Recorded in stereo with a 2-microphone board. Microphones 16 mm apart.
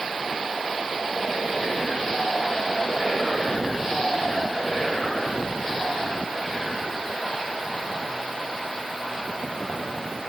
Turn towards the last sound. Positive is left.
No sound to turn to.